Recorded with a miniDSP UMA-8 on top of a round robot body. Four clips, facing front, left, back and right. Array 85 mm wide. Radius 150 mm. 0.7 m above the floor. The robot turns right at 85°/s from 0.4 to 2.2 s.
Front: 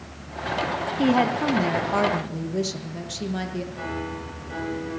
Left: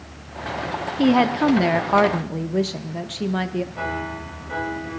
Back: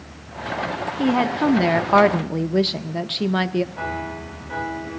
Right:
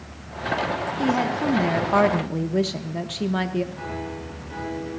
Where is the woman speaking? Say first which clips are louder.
Left 7 dB, back 1 dB; 80° left, 0.8 m; by 3.6 s 175° right, 0.8 m.